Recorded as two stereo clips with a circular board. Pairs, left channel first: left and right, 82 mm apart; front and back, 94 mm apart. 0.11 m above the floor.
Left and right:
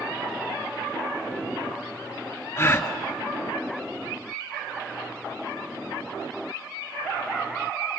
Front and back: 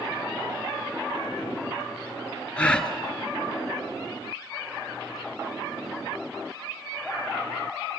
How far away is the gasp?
About 1.4 m.